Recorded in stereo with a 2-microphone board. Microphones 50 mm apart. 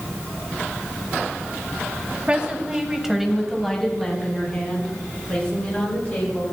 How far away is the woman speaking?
About 1.6 m.